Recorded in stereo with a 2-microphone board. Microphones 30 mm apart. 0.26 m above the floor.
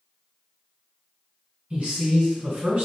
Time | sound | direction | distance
1.7 | a man speaking | 40° right (ahead or behind) | 1.8 m